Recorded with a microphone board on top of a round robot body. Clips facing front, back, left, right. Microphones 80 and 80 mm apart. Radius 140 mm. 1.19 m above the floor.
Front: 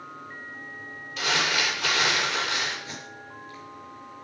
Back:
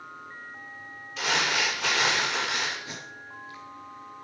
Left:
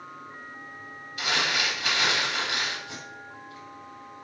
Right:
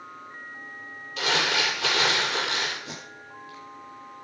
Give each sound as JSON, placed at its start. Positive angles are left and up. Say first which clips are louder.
{"t": 1.2, "sound": "crumpling", "louder": "front 1 dB, right 2 dB", "azimuth_deg": -90, "distance_m": 7.0}
{"t": 2.9, "sound": "tape being pulled", "louder": "front 1 dB, even", "azimuth_deg": -100, "distance_m": 4.0}